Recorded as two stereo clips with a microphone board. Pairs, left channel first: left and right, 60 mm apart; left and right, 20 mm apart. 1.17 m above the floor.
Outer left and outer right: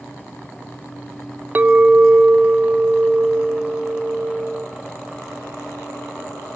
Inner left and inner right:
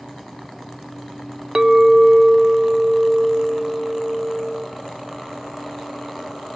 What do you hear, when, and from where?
1.6 s a clink: 30° right (ahead or behind), 0.5 m